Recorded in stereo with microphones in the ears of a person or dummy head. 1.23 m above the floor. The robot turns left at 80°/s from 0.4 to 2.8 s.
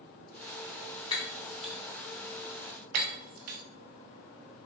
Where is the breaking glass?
30° left (ahead or behind), 0.7 m; by 3.6 s 50° right (ahead or behind), 0.7 m.